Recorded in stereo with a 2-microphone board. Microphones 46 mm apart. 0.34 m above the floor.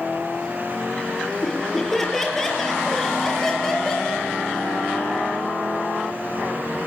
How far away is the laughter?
About 8.5 m.